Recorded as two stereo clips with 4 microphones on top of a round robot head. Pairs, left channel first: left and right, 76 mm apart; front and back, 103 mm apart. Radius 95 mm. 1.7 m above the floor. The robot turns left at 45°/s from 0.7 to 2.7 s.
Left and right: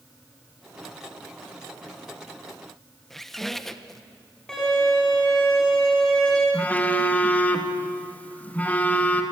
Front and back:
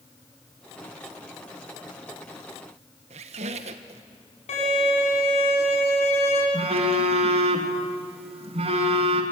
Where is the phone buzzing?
160° left, 2.5 m.